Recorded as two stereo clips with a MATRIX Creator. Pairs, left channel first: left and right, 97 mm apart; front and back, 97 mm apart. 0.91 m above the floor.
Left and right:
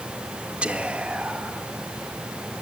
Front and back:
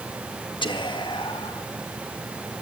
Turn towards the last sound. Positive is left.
turn(degrees=-15)